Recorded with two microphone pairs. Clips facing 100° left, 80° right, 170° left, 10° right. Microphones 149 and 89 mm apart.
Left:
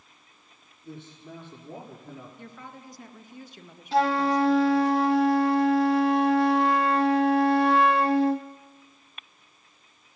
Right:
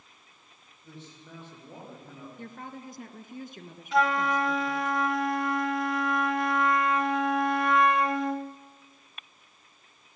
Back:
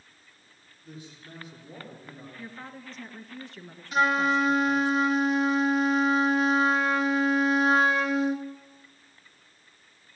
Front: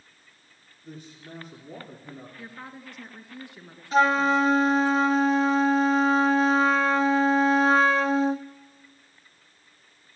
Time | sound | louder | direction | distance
0.8 | a man speaking | left 5 dB, front 2 dB | 30° left | 7.5 m
2.4 | a woman speaking | right 3 dB, even | 85° right | 2.5 m
3.9 | a flute | left 3 dB, front 3 dB | 45° left | 1.1 m